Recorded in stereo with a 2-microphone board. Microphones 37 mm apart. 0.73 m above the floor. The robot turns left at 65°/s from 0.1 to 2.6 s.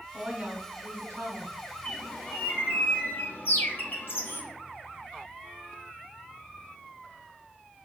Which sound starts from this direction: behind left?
A bird, at 1.9 s.